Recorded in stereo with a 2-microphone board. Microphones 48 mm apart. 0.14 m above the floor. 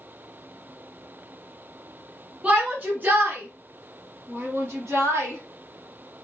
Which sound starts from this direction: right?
A shout, at 2.4 s.